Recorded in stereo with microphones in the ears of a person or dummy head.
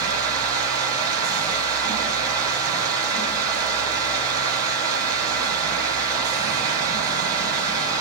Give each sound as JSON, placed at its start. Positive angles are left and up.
{"t": 0.0, "sound": "a fan", "side_deg": -20, "distance_m": 2.0}